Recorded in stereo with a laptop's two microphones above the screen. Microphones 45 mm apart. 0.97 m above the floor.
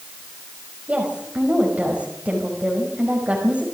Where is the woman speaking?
30° right (ahead or behind), 5 m.